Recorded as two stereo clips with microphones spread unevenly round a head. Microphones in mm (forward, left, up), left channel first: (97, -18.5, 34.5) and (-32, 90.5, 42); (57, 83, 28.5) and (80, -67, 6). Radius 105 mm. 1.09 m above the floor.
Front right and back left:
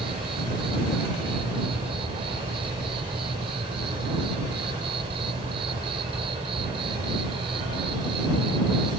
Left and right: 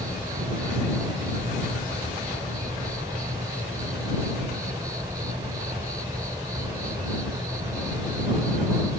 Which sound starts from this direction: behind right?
An insect, at 0.0 s.